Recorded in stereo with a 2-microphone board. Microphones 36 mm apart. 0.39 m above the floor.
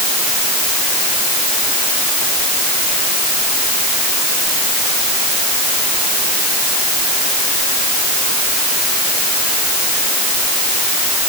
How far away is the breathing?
I don't hear breathing.